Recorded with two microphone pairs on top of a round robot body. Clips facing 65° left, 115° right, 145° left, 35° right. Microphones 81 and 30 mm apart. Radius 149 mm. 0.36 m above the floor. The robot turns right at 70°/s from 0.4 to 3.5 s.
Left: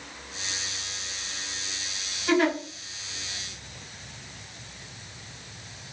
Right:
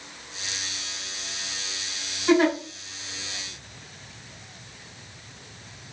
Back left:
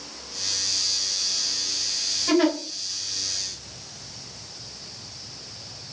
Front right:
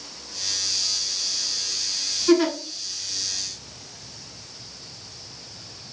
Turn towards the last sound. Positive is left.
turn(degrees=-95)